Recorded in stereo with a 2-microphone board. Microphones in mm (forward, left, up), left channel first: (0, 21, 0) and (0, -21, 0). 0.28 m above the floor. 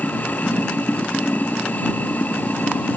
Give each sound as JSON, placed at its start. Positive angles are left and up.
{"t": 0.0, "sound": "running water", "side_deg": 40}